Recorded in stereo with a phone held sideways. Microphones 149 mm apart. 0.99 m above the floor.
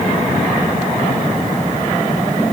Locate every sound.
Only background noise.